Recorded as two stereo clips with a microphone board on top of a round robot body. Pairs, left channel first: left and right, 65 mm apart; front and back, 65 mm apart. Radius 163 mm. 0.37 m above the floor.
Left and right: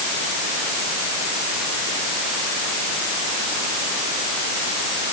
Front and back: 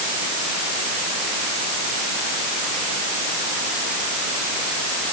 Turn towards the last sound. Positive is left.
No sound to turn to.